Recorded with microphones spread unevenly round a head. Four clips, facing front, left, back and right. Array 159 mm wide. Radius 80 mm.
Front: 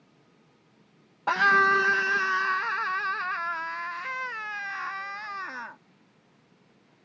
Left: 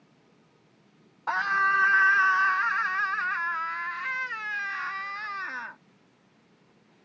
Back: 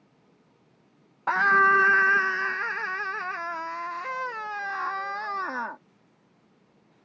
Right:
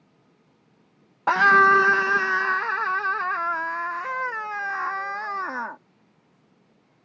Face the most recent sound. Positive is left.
turn(degrees=-135)